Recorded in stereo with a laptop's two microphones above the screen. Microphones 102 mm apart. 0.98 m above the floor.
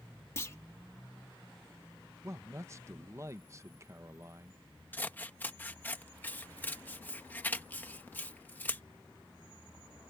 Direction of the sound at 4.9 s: 20° left (ahead or behind).